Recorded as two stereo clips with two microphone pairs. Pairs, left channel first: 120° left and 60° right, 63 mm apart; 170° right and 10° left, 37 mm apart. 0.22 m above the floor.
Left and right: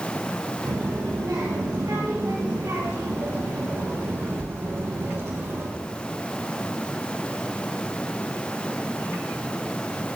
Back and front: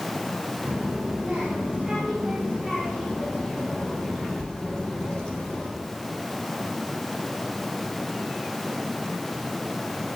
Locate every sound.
0.7 s a child speaking: 50° right, 4 m; by 5.7 s 95° right, 5 m